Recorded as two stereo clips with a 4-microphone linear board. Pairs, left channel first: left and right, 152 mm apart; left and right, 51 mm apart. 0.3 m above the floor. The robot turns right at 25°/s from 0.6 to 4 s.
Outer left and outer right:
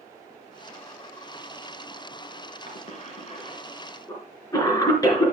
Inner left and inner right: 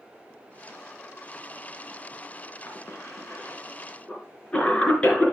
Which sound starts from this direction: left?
A cough, at 2.7 s.